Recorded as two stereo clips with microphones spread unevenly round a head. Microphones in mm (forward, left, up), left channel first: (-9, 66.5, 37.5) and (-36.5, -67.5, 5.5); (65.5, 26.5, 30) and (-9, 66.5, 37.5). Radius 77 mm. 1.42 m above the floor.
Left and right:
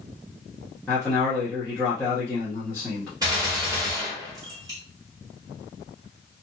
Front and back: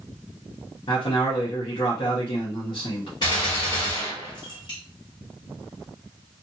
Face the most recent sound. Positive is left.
turn(degrees=-25)